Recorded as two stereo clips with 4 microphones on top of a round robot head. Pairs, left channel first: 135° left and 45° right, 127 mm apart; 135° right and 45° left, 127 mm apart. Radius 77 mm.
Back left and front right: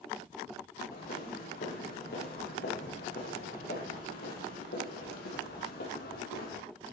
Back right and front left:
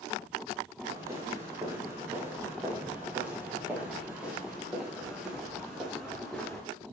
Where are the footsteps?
115° left, 8.5 m; by 6.6 s 140° left, 8 m.